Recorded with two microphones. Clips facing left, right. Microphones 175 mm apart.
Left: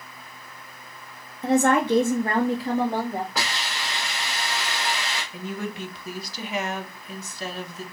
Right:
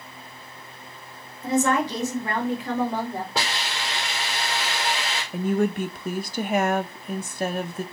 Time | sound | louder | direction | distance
1.4 | a woman speaking | left 3 dB | 65° left (ahead or behind) | 1.3 m
3.4 | a hiss | right 2 dB | 30° right (ahead or behind) | 2.5 m
5.3 | a woman speaking | right 12 dB | 50° right (ahead or behind) | 0.6 m